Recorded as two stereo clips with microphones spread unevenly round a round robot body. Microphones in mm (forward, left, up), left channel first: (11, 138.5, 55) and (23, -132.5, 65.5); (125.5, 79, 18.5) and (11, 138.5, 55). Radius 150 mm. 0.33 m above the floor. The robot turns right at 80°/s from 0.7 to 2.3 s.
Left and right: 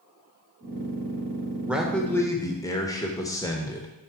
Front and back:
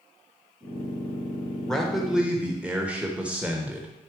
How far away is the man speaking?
About 1.1 m.